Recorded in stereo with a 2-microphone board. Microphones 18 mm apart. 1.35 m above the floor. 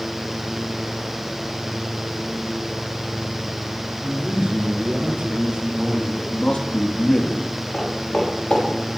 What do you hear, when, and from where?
4.0 s a man speaking: 80° right, 3.5 m; by 6.1 s 60° right (ahead or behind), 4 m
6.2 s a man speaking: 80° left, 2.5 m
7.7 s footsteps: 75° left (ahead or behind), 6 m